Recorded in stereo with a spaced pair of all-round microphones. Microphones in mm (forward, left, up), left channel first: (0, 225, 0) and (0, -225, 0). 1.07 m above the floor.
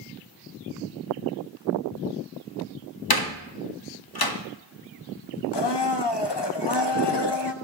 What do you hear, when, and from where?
3.1 s a door slam: 55° left (ahead or behind), 0.9 m
5.5 s a blender: 65° left (ahead or behind), 0.7 m